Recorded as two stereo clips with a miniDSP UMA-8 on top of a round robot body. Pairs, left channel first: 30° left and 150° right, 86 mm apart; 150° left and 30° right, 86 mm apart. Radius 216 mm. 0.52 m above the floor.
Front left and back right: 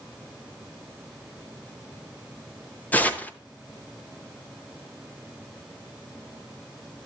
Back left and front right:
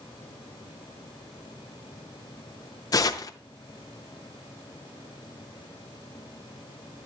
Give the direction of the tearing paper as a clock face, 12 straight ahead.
9 o'clock.